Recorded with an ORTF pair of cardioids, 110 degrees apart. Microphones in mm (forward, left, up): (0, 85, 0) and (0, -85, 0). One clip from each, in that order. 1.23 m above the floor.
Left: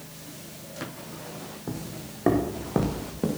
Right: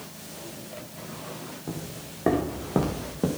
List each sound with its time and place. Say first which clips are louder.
1.7 s footsteps: left 2 dB; 15° left, 4 m; by 3.3 s 5° right, 4.5 m